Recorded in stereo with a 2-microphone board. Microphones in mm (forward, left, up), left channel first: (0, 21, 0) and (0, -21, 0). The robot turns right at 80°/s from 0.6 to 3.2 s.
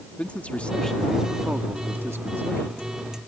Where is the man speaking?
145° left; by 2.8 s 45° right.